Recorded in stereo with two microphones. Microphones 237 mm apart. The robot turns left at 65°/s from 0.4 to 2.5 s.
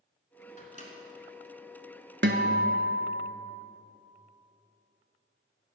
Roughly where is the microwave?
Left.